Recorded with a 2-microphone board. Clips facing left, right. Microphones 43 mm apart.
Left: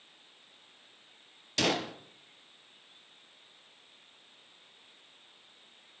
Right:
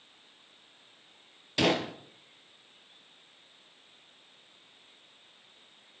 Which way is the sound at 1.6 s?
15° right (ahead or behind).